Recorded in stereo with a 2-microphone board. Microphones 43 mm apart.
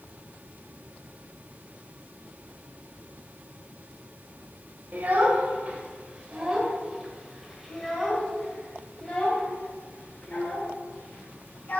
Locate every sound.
4.9 s a child speaking: 45° right (ahead or behind), 1.8 m; by 11.8 s 35° left (ahead or behind), 3.5 m